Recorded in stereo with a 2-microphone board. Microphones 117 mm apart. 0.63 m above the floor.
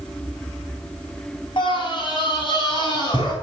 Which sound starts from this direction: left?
A scream, at 1.6 s.